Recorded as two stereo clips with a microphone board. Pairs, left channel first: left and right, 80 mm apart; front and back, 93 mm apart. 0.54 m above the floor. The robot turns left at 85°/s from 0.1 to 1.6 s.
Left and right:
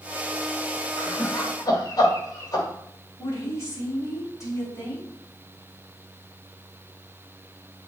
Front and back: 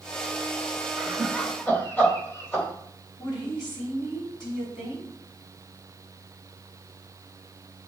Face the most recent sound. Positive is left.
turn(degrees=35)